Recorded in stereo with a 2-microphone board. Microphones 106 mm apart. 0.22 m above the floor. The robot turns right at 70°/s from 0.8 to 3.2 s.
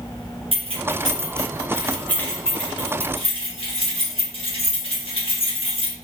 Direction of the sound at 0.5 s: 65° right (ahead or behind).